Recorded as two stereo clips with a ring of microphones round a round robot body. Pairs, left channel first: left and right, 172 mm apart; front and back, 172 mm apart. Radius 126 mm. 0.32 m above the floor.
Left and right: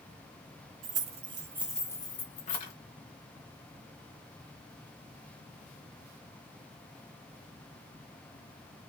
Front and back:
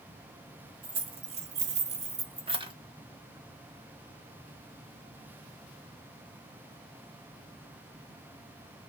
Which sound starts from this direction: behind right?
Keys jangling, at 0.8 s.